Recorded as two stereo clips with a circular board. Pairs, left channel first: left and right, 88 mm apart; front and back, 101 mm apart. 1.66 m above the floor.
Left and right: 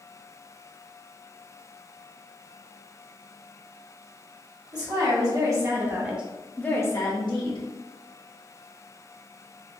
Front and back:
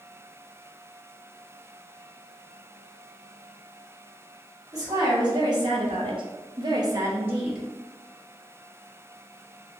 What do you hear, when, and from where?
4.7 s a woman speaking: 130° right, 1.2 m; by 7.6 s 100° left, 0.7 m